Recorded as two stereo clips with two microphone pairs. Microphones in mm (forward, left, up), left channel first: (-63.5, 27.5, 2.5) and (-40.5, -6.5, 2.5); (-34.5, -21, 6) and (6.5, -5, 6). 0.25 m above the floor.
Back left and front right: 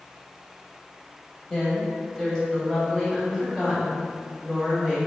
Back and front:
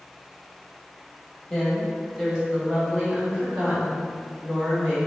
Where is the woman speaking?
140° left, 1.5 m; by 5.1 s 40° left, 3 m.